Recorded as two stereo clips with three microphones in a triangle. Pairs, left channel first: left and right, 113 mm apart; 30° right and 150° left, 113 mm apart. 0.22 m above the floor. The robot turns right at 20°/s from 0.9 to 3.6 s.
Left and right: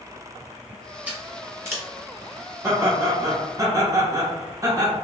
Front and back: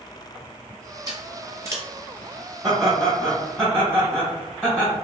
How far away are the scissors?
About 0.9 m.